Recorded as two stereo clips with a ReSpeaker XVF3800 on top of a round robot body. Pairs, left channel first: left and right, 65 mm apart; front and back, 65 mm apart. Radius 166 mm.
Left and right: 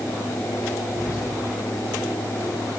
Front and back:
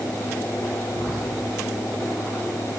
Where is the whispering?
105° left, 1.5 m.